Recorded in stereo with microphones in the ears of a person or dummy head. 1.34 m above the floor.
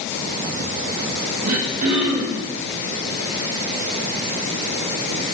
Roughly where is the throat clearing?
Right.